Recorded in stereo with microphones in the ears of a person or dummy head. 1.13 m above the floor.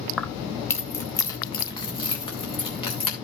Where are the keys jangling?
Centre (ahead or behind), 0.9 m; by 3.1 s 25° left (ahead or behind), 3 m.